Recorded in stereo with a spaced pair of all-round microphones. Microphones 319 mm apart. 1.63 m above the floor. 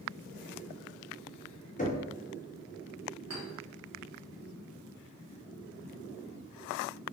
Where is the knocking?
25° left (ahead or behind), 0.6 m.